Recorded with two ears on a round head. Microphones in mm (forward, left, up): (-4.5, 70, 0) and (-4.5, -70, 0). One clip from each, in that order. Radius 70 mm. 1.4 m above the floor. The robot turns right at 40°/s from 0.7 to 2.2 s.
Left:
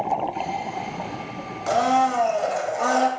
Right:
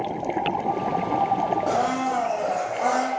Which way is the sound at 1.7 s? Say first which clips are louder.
Left 4 dB; 50° left (ahead or behind).